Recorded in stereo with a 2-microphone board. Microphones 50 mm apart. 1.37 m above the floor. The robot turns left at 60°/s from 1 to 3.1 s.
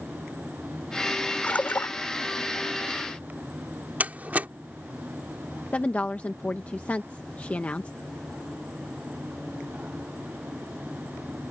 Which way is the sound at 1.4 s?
150° left.